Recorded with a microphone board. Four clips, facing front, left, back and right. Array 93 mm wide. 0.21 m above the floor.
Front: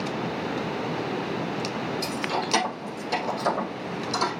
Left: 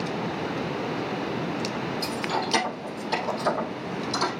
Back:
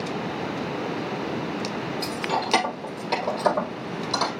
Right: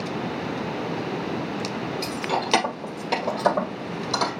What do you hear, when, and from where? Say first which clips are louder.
2.0 s keys jangling: right 2 dB, back 2 dB; 110° right, 2.5 m; by 4.3 s 115° right, 4 m